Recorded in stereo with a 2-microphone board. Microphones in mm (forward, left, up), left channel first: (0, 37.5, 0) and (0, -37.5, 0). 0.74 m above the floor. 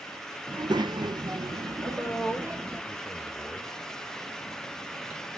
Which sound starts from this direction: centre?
A man speaking, at 1.8 s.